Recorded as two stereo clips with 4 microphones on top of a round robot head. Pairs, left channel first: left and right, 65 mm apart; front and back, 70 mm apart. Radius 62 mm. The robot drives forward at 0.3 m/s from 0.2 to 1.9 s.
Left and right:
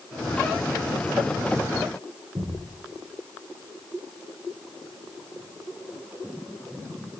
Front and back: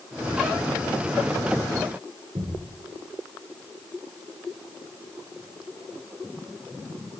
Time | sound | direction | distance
2.4 | a thud | 155° right | 7 m